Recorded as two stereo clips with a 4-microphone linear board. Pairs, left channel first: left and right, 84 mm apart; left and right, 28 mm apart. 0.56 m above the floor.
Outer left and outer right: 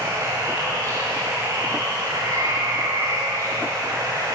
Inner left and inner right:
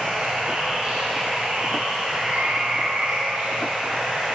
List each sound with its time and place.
0.0 s running water: 40° right (ahead or behind), 8 m